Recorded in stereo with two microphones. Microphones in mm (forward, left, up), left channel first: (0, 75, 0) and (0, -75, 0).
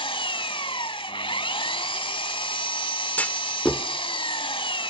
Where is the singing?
No singing in this recording.